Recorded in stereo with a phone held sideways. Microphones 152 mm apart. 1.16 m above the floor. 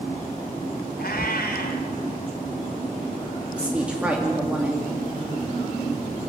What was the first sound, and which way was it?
A cat meowing, 80° left.